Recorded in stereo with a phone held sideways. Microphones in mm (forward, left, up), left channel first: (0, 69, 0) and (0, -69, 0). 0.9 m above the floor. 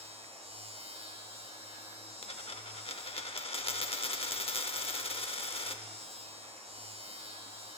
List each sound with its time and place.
0.0 s a machine running: 50° right (ahead or behind), 1.2 m
2.2 s a dropped coin: 50° left (ahead or behind), 0.7 m